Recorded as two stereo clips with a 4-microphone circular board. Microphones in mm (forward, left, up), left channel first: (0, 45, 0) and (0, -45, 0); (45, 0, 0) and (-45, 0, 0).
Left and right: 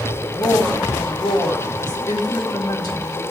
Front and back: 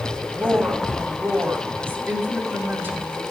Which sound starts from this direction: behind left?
A woman speaking, at 0.3 s.